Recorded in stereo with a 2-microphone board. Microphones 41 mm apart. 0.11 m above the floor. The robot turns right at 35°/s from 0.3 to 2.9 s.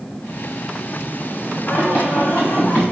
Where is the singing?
105° left, 3.5 m; by 2.9 s 150° left, 3.5 m.